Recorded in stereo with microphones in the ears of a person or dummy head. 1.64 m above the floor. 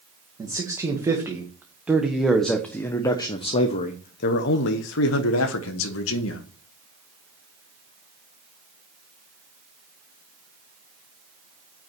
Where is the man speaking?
20° right (ahead or behind), 2 m; by 6.5 s 75° left (ahead or behind), 1.8 m.